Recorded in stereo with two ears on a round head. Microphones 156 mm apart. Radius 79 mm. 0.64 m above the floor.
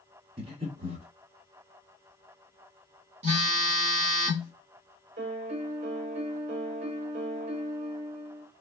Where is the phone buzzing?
40° right (ahead or behind), 1.1 m.